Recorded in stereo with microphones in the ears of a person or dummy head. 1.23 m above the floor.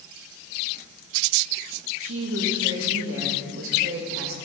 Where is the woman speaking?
70° right (ahead or behind), 2 m.